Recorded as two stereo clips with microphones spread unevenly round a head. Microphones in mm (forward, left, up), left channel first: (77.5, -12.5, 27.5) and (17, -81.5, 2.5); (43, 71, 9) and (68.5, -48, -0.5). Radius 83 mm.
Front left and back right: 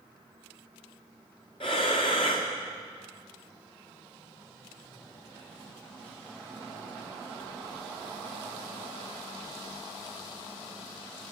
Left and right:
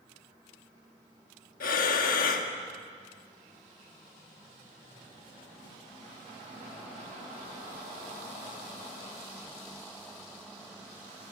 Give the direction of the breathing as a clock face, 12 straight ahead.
8 o'clock.